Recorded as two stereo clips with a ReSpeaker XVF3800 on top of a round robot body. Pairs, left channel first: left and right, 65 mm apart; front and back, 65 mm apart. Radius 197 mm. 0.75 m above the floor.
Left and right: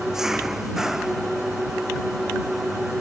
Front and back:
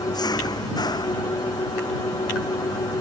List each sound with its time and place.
0.0 s an engine running: 5° right